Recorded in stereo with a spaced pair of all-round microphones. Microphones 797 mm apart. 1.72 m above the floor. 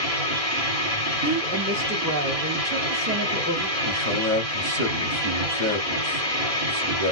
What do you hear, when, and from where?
0.0 s a machine running: 25° right (ahead or behind), 2 m
1.2 s a woman speaking: 20° right (ahead or behind), 0.7 m
3.8 s a man speaking: 35° right (ahead or behind), 1.5 m